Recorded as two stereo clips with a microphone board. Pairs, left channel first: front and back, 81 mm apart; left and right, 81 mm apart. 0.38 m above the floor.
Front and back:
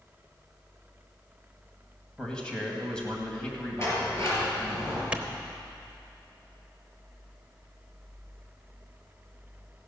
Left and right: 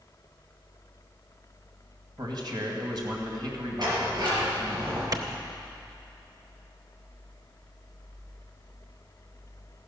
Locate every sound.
2.2 s a man speaking: 80° right, 2.5 m
3.8 s a sliding door: 55° right, 5 m
5.1 s a clap: 110° right, 1.0 m